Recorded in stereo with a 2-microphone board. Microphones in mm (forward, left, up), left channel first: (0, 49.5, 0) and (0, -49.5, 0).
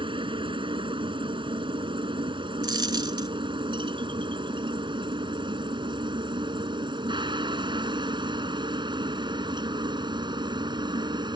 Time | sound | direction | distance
0.0 | a helicopter | 55° right (ahead or behind) | ?
2.6 | a dropped coin | 50° right (ahead or behind) | ?